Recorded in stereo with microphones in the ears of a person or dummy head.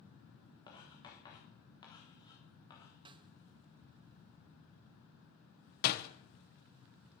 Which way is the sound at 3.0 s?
25° right (ahead or behind).